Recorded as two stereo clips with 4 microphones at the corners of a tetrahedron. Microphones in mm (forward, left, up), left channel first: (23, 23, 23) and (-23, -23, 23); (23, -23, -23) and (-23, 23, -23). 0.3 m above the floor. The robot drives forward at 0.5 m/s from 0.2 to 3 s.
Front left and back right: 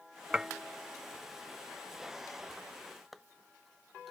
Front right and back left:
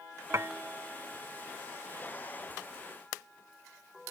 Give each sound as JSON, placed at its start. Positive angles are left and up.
{"t": 0.3, "sound": "dishes clattering", "azimuth_deg": 150}